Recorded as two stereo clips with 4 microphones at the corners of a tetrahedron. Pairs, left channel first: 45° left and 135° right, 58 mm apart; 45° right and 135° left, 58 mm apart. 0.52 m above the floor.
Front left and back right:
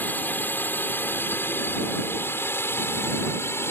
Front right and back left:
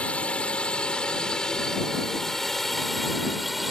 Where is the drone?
15° left; by 3.7 s 50° left.